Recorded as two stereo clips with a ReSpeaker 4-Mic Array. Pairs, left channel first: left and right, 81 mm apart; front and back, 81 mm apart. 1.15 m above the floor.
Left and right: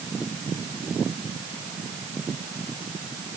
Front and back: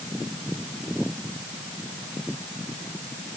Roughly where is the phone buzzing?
I don't hear a phone buzzing.